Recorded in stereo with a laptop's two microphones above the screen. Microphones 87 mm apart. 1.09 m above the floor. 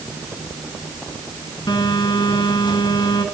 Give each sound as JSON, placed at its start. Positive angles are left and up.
{"t": 1.7, "sound": "a phone buzzing", "side_deg": 60, "distance_m": 2.5}